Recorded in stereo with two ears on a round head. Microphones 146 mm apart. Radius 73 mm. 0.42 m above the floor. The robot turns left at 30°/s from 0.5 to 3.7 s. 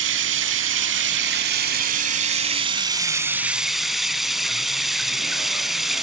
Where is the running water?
85° right, 1.1 m; by 6.0 s straight behind, 1.1 m.